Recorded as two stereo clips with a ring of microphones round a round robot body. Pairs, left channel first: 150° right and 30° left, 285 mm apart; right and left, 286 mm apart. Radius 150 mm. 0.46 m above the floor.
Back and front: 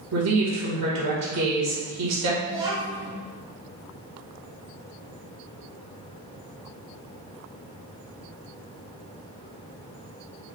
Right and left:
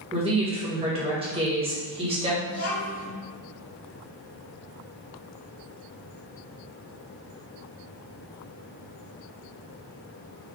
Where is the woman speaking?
20° left, 1.8 m.